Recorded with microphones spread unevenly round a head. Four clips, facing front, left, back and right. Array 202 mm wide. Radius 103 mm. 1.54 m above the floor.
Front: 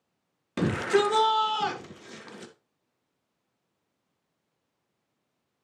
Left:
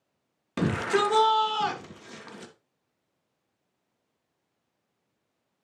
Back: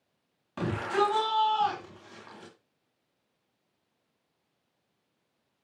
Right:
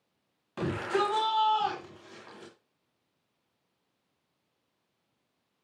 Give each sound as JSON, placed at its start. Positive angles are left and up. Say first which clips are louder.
{"t": 0.6, "sound": "a shout", "louder": "left 4 dB, front 4 dB", "azimuth_deg": 40, "distance_m": 3.0}